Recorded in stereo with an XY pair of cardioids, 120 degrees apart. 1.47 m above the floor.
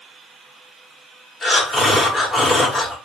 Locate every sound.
1.4 s breathing: 10° left, 1.6 m